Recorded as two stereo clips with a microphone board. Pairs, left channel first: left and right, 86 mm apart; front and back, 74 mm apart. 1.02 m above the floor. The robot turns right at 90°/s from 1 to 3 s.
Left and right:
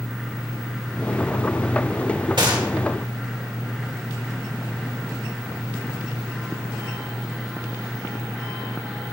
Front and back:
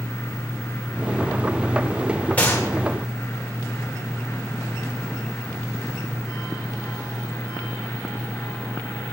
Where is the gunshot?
70° right, 2 m; by 2.7 s 40° right, 2 m.